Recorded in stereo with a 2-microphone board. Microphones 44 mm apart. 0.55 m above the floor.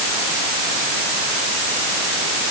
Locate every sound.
Only background noise.